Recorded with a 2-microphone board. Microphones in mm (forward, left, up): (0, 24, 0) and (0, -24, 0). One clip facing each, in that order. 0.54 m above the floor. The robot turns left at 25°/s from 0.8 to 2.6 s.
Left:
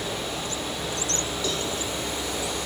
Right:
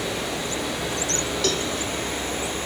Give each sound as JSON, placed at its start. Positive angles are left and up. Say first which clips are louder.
{"t": 0.0, "sound": "running water", "louder": "right 3 dB", "azimuth_deg": -100, "distance_m": 7.5}
{"t": 1.4, "sound": "a cowbell", "louder": "right 5 dB", "side_deg": -70, "distance_m": 1.6}